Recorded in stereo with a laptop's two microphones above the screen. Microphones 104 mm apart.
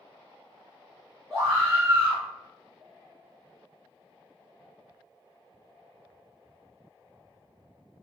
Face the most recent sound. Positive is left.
turn(degrees=0)  # may be behind; listen again after turning